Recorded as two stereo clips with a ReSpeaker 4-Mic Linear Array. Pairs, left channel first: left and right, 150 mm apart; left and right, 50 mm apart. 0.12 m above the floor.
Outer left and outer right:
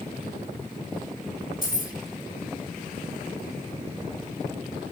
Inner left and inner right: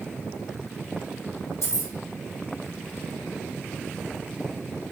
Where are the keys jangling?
65° left (ahead or behind), 2.5 m.